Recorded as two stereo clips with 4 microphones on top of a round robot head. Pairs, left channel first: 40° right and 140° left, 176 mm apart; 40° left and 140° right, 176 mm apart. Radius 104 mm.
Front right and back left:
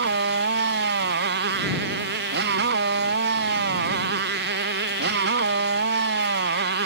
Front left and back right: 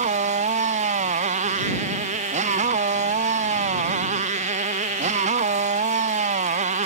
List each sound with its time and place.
0.0 s a motorcycle: 170° left